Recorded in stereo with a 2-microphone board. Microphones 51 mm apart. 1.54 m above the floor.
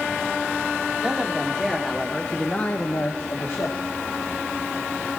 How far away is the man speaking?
About 2 m.